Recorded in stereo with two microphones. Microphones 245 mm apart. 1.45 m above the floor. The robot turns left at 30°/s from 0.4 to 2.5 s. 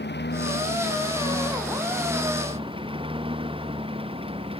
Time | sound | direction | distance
0.0 | a lawn mower | 45° left (ahead or behind) | ?